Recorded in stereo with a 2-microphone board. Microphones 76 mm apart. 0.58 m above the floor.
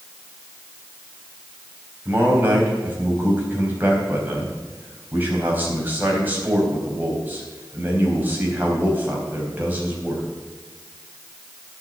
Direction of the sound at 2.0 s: 25° right (ahead or behind).